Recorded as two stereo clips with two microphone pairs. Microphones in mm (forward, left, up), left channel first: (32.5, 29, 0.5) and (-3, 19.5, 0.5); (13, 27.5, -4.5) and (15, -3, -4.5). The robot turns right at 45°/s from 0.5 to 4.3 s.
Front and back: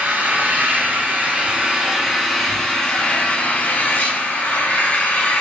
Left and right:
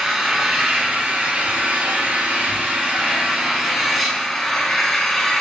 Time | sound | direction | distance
0.0 | an engine running | 160° right | 0.8 m